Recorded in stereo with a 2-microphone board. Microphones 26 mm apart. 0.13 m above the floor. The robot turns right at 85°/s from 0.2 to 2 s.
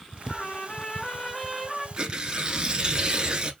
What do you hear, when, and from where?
0.3 s a trumpet: 60° left, 0.8 m; by 1.9 s 165° right, 0.8 m
2.0 s tearing paper: 30° right (ahead or behind), 0.7 m; by 3.5 s 35° right (ahead or behind), 0.7 m